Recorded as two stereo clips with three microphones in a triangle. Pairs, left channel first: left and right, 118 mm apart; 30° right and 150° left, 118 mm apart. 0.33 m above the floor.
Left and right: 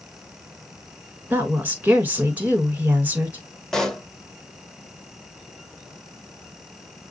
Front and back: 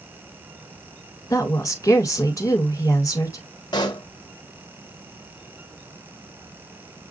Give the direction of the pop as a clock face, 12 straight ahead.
12 o'clock.